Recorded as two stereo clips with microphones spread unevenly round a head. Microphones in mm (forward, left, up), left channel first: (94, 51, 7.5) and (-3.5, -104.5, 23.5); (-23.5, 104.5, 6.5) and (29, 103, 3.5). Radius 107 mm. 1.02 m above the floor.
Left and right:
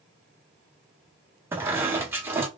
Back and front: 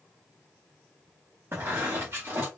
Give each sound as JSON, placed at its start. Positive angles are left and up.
{"t": 1.5, "sound": "a squeak", "azimuth_deg": -55, "distance_m": 0.8}